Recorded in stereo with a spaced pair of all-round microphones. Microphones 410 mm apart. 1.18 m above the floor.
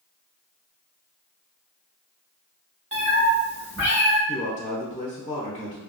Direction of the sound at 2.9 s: 30° right (ahead or behind).